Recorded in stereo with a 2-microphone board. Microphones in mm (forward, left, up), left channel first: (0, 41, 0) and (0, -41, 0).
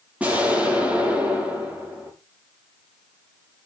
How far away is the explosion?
About 7.5 m.